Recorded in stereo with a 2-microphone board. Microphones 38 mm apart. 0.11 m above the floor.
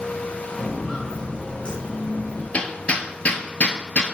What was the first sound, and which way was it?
Footsteps, 10° left (ahead or behind).